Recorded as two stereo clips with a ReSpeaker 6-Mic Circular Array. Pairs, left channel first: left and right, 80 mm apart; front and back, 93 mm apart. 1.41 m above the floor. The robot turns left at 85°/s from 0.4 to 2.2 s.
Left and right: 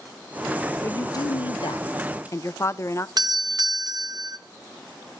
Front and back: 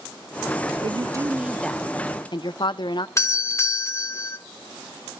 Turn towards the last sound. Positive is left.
turn(degrees=-55)